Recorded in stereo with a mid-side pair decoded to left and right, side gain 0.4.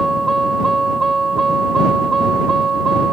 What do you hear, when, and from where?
0.0 s a vehicle: 20° right; by 3.1 s 45° right